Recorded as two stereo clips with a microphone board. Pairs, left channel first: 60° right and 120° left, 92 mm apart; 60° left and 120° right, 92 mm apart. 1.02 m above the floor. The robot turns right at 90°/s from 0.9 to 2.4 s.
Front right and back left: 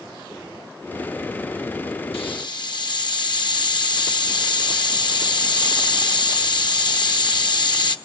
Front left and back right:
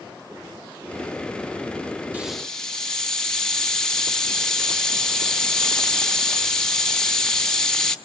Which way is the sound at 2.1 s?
45° right.